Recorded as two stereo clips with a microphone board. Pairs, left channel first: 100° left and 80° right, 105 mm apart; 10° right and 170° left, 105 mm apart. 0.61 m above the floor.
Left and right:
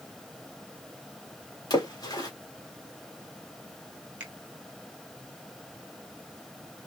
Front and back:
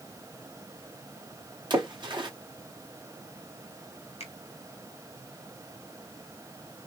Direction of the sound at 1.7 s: 140° left.